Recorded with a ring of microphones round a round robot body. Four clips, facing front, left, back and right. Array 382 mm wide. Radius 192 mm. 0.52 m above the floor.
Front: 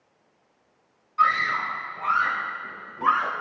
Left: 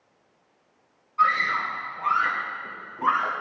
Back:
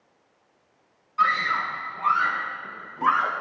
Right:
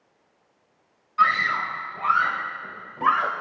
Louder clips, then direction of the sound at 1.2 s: Right 1 dB, front 1 dB; 85° right.